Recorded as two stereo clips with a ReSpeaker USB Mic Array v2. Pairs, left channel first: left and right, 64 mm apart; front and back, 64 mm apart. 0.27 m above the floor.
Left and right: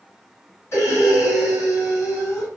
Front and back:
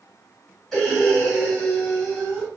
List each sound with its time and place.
0.7 s breathing: 80° left, 2.0 m